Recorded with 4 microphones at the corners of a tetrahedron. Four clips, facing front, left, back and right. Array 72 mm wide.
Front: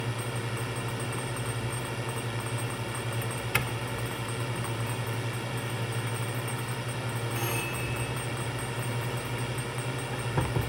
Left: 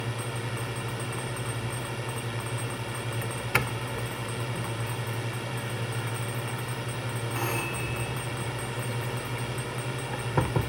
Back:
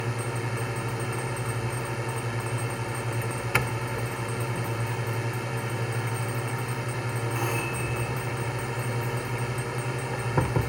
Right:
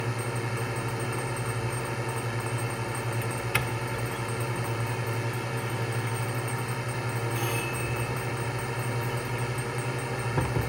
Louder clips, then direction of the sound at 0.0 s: Right 2 dB, back 3 dB; 140° right.